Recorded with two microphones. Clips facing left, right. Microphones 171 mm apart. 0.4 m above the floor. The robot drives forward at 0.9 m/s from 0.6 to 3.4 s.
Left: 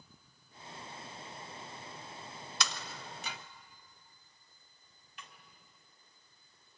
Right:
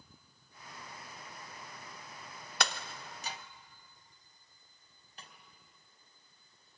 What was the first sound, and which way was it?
Breaking glass, 60° right (ahead or behind).